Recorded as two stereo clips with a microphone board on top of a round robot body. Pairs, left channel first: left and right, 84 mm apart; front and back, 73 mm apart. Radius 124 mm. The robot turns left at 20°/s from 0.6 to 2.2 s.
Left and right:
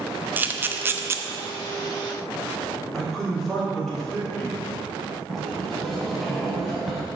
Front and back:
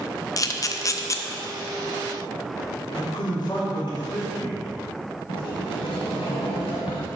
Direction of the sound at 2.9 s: Straight ahead.